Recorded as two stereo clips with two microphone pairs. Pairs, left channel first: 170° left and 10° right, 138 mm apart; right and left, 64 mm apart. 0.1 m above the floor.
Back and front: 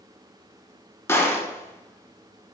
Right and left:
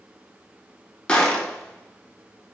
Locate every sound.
1.1 s a gunshot: 145° right, 0.5 m